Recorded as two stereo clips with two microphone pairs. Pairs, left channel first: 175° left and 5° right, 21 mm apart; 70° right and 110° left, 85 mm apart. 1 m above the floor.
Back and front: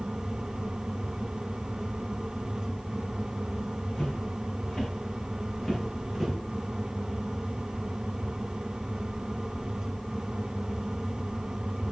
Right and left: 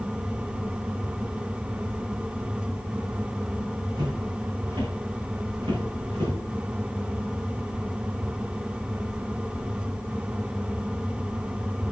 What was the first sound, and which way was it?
Footsteps, 130° left.